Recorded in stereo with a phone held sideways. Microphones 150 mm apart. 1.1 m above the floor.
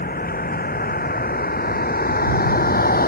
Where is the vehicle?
80° left; by 3.1 s 85° left.